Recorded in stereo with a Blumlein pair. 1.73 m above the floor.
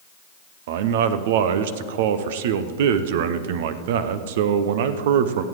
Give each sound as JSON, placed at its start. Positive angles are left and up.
{"t": 0.7, "sound": "a man speaking", "azimuth_deg": -55, "distance_m": 0.8}